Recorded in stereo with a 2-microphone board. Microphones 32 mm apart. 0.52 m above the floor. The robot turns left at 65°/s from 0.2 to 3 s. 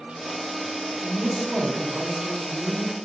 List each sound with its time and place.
1.0 s a woman speaking: 25° right (ahead or behind), 0.7 m; by 3.0 s 5° left (ahead or behind), 0.7 m